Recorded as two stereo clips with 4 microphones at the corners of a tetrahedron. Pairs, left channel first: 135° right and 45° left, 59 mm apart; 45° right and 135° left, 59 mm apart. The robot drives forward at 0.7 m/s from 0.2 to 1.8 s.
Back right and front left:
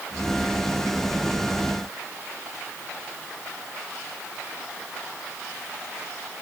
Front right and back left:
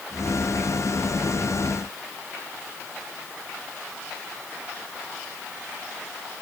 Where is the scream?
I don't hear a scream.